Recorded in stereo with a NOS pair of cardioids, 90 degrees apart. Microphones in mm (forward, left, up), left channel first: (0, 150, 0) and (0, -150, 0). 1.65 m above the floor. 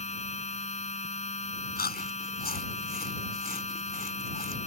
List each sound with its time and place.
0.0 s a machine running: 20° left
1.8 s chewing: 30° left